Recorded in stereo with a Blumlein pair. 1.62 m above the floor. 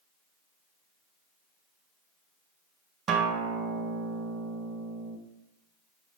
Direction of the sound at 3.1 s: 25° right.